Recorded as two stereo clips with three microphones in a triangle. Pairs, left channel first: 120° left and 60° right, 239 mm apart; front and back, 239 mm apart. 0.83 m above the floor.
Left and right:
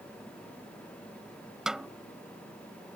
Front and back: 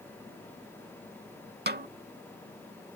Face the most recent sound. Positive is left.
turn(degrees=-145)